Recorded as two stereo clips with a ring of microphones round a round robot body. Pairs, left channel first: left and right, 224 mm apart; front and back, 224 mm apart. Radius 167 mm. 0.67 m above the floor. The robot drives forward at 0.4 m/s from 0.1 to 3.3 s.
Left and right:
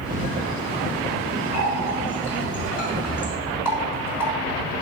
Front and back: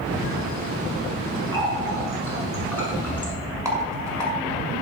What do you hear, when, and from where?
1.5 s a running tap: 75° left, 6 m; by 3.3 s 85° left, 6 m
3.6 s a rattle: 100° left, 6 m